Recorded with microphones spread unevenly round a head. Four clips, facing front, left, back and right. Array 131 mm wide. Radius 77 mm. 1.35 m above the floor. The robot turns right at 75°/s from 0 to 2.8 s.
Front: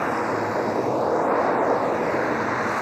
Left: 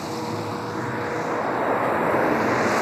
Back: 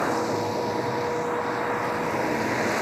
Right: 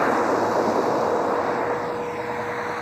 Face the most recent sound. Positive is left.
turn(degrees=95)